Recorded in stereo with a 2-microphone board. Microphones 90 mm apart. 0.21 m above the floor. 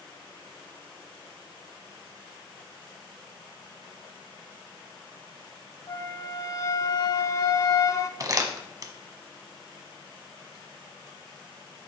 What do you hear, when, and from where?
5.9 s a flute: 40° left (ahead or behind), 0.7 m
8.2 s crumpling: 40° right (ahead or behind), 1.3 m